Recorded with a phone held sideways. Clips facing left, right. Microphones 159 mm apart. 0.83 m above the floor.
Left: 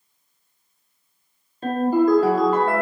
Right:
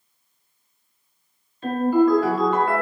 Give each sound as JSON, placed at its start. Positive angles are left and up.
{"t": 1.6, "sound": "a ringtone", "side_deg": 40, "distance_m": 0.7}